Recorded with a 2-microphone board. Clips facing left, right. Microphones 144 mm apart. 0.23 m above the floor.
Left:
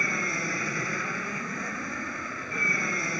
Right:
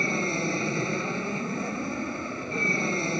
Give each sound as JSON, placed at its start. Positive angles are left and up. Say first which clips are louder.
{"t": 0.0, "sound": "an aircraft", "louder": "right 5 dB", "side_deg": -25}